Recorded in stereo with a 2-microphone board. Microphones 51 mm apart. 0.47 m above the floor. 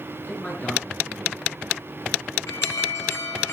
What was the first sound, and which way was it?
A man speaking, 25° left (ahead or behind).